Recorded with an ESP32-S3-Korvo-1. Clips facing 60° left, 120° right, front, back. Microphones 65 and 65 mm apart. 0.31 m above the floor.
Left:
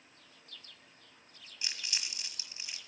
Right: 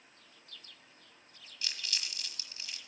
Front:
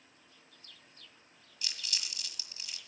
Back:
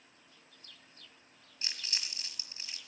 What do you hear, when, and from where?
1.6 s crumpling: 125° left, 1.4 m